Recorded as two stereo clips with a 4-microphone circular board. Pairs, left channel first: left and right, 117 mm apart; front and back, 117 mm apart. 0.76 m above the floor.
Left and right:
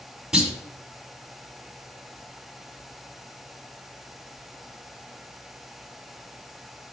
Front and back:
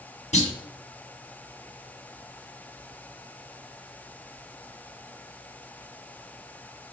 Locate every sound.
0.3 s a clunk: 5° right, 1.3 m